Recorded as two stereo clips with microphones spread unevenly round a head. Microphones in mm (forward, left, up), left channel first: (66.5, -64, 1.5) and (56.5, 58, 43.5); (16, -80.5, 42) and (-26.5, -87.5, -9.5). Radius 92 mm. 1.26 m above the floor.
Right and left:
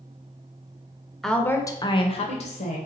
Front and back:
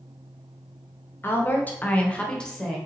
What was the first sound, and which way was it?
A woman speaking, 5° left.